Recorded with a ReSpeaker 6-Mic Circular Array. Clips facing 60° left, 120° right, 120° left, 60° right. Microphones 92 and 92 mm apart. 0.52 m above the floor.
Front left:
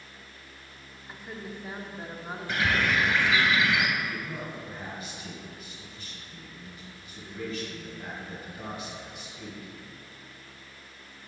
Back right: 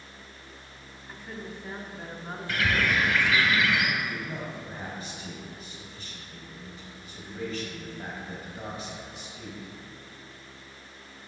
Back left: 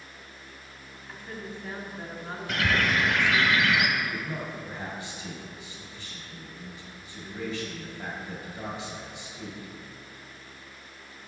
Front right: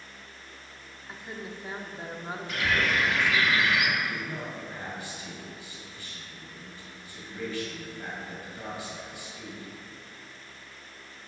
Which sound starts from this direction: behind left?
A bird, at 2.5 s.